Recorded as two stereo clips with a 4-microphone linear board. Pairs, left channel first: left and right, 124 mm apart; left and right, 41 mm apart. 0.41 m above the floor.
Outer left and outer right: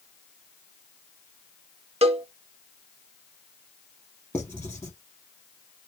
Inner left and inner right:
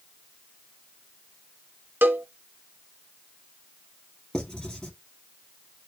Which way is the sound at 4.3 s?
20° left (ahead or behind).